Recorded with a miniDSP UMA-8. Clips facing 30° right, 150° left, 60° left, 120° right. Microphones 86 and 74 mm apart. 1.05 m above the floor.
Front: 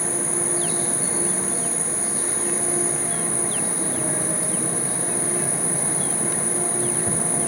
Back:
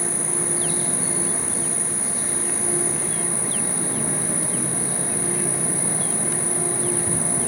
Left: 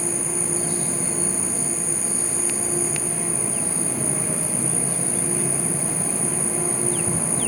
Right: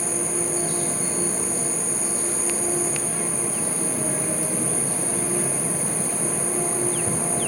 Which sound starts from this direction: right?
An insect, at 0.0 s.